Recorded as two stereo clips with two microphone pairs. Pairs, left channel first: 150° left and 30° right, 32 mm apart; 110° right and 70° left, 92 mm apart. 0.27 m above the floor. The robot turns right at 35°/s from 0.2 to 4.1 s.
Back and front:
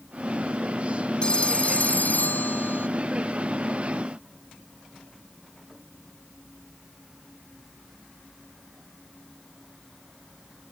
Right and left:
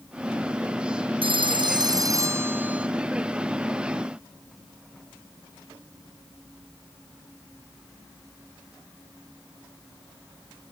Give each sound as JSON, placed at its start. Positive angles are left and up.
{"t": 1.2, "sound": "a phone ringing", "azimuth_deg": 90}